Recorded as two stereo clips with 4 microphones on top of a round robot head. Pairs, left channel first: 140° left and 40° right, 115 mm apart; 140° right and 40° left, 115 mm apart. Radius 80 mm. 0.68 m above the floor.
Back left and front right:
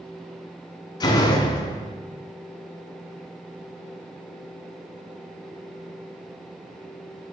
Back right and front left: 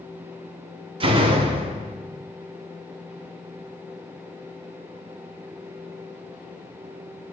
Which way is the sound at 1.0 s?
85° left.